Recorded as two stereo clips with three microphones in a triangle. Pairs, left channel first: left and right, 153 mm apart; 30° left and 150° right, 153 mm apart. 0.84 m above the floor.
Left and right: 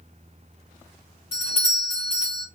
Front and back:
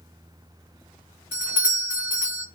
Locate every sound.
1.3 s a doorbell: 135° left, 2.5 m